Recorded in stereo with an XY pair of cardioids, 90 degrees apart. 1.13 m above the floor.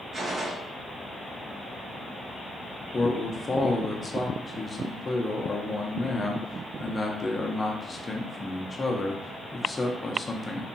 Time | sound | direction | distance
0.1 | a gunshot | 55° right | 0.7 m
2.9 | a man speaking | 25° left | 0.6 m